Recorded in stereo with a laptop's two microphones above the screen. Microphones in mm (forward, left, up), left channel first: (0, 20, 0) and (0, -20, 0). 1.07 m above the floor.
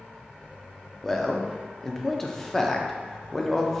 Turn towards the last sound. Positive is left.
turn(degrees=10)  # may be behind; listen again after turning